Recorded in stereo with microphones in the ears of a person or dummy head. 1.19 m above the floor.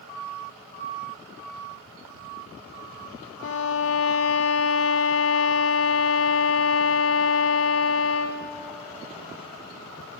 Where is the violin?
70° left (ahead or behind), 0.6 m.